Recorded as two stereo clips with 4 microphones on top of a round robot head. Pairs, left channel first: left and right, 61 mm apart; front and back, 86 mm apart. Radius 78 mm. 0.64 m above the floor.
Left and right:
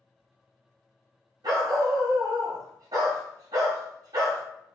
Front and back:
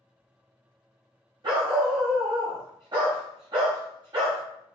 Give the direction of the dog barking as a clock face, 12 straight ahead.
4 o'clock.